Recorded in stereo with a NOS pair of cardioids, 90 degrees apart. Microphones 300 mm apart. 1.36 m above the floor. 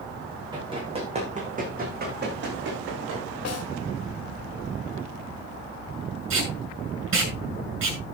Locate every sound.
0.5 s running footsteps: 15° right, 6 m; by 3.4 s 50° right, 6 m
3.5 s a snare drum: 60° left, 3 m
6.3 s tape being pulled: 45° right, 6.5 m